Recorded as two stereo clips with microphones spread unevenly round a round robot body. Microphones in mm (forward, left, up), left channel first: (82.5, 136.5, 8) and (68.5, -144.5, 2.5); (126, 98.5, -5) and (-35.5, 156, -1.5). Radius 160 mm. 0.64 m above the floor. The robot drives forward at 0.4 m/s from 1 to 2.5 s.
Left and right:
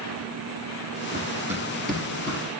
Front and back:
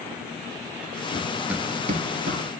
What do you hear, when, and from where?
1.1 s running footsteps: 40° right, 0.6 m; by 2.4 s 165° left, 1.1 m